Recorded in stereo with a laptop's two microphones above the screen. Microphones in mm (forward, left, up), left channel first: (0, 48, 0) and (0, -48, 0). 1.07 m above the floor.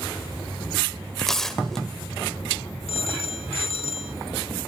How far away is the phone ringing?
About 2 m.